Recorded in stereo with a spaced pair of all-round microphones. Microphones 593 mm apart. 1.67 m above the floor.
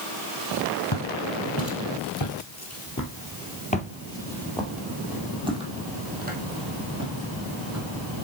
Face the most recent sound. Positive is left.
turn(degrees=-25)  # may be behind; listen again after turning